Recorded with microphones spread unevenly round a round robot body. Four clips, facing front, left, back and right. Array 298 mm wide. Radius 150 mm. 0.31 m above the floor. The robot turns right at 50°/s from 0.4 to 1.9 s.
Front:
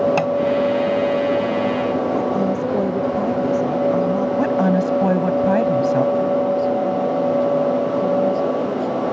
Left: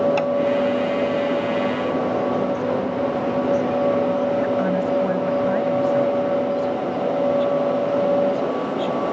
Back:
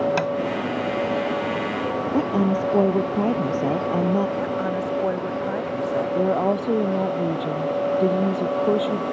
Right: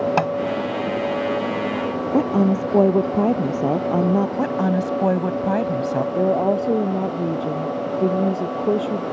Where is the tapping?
75° right.